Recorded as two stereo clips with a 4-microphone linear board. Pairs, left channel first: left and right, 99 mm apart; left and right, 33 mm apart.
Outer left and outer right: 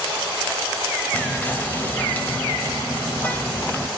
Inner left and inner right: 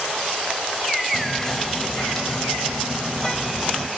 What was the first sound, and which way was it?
Whispering, 15° left (ahead or behind).